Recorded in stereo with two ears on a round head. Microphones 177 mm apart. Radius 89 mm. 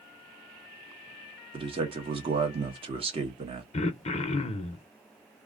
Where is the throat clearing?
30° left (ahead or behind), 0.5 m.